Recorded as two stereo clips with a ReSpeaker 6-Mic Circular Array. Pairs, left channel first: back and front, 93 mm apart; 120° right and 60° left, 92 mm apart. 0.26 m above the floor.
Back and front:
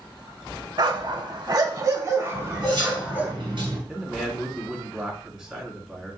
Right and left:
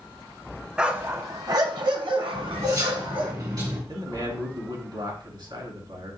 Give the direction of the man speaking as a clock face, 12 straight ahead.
9 o'clock.